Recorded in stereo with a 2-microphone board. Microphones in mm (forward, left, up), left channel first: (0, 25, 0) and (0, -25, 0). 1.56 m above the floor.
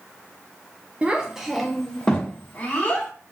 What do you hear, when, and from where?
1.0 s a child speaking: 25° right (ahead or behind), 0.6 m; by 3.1 s 30° left (ahead or behind), 1.2 m